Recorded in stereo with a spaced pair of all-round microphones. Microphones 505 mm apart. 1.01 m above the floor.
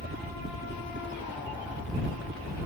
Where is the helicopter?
15° right (ahead or behind); by 2.7 s 25° right (ahead or behind).